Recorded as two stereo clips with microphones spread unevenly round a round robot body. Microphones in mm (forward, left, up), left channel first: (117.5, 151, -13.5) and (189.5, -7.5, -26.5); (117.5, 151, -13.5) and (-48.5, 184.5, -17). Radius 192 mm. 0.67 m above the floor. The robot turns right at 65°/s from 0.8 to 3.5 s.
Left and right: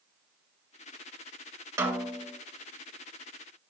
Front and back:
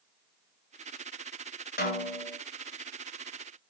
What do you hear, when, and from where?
1.8 s a snare drum: 5° left, 2.5 m; by 2.4 s 45° left, 2.5 m